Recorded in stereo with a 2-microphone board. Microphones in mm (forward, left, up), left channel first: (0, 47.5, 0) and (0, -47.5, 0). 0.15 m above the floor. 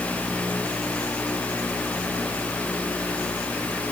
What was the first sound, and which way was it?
Only background noise.